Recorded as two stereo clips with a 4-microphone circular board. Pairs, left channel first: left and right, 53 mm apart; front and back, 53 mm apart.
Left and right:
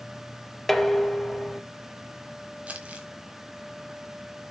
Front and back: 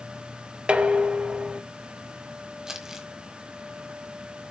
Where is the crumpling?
110° right, 1.6 m.